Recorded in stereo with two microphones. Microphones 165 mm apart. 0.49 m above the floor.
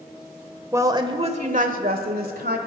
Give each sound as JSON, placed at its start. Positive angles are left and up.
{"t": 0.7, "sound": "a woman speaking", "side_deg": -15, "distance_m": 1.5}